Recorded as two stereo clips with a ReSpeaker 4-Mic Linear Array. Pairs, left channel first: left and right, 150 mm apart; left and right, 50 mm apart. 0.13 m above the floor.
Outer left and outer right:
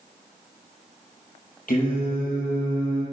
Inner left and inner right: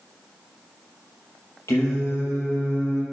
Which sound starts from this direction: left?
Singing, at 1.7 s.